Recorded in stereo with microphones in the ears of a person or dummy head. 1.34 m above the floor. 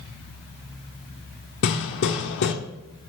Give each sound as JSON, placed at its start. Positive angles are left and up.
{"t": 1.6, "sound": "hammering", "side_deg": 50, "distance_m": 1.3}